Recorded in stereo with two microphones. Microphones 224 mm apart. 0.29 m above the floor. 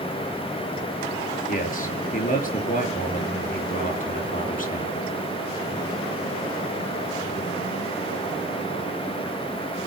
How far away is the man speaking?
About 5 m.